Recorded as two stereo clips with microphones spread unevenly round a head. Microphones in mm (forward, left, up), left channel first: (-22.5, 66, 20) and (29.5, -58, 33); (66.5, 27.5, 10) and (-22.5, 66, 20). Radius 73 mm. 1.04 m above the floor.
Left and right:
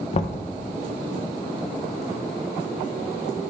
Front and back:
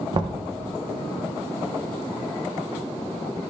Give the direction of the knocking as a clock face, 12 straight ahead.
8 o'clock.